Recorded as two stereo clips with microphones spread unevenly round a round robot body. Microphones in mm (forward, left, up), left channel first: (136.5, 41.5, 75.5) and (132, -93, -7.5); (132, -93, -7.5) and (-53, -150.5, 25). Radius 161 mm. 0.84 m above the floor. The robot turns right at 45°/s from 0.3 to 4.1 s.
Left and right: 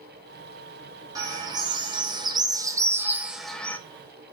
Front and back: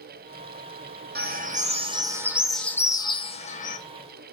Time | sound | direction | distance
1.1 | a bird | 130° right | 1.4 m